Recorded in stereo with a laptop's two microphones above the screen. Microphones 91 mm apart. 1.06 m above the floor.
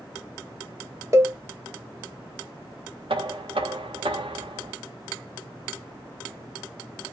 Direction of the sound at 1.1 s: 35° right (ahead or behind).